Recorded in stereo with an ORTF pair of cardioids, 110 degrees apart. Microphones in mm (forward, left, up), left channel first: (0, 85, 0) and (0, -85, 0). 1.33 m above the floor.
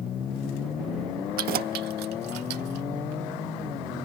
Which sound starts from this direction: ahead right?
Keys jangling, at 1.4 s.